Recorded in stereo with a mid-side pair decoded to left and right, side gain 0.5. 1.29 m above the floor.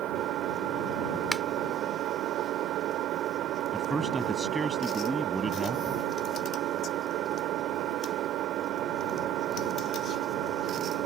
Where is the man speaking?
20° right.